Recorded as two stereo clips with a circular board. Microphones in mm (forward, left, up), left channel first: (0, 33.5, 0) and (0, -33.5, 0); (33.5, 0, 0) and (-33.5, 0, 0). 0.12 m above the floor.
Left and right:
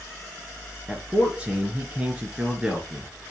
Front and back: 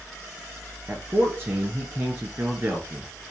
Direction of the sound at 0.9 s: 150° right.